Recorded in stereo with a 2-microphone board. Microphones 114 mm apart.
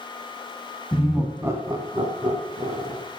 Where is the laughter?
15° left (ahead or behind), 1.3 m; by 3.0 s 65° right (ahead or behind), 3 m.